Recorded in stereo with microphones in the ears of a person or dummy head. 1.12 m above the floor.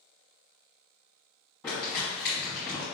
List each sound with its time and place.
1.6 s crumpling: 5° left (ahead or behind), 1.4 m